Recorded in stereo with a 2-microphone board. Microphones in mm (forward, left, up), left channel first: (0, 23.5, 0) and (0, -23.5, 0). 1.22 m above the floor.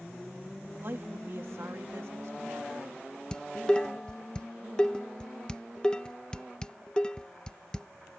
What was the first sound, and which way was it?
A woman speaking, 50° right (ahead or behind).